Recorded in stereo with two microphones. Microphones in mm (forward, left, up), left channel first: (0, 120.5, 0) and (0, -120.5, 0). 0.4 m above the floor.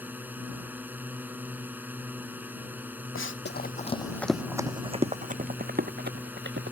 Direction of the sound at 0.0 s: 5° right (ahead or behind).